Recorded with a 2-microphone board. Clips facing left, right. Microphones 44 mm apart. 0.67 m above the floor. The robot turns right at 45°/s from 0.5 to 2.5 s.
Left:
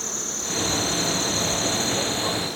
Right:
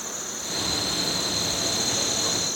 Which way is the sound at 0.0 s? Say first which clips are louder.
Left 2 dB; 75° left.